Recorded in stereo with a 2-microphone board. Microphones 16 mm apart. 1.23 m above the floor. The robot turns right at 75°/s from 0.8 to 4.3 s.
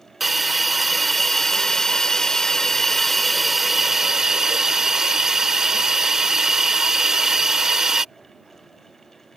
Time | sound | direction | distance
0.2 | a hiss | 10° right | ?